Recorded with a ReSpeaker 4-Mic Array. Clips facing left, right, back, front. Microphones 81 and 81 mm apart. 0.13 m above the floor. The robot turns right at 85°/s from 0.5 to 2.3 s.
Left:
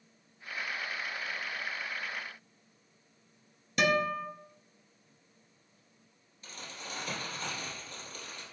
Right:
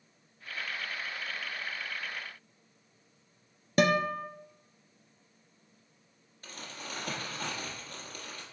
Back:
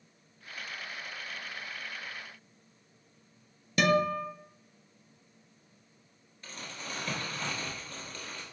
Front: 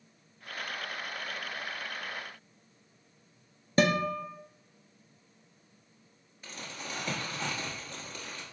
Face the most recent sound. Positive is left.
turn(degrees=-80)